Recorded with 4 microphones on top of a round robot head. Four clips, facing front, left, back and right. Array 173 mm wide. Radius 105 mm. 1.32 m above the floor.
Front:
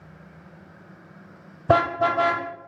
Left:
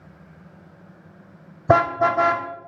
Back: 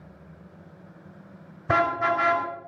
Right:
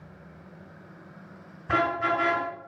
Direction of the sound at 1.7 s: 60° left.